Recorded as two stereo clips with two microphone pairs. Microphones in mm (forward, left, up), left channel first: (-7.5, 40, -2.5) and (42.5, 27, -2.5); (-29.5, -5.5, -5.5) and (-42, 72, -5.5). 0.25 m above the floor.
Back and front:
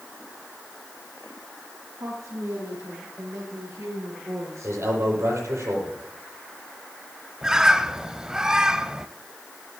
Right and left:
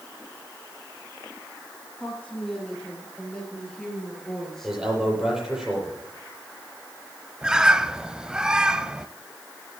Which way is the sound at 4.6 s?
15° left.